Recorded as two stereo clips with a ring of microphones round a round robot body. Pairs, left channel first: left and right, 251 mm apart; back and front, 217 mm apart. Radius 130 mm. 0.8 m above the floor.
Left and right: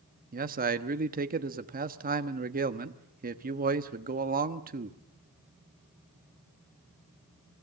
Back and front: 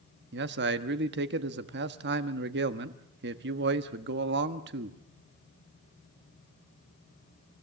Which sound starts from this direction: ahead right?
A man speaking, at 0.3 s.